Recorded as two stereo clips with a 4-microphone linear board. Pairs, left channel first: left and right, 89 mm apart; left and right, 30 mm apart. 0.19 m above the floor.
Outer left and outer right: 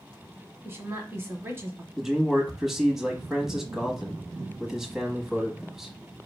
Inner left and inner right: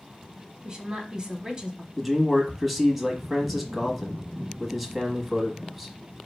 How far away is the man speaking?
About 1.1 m.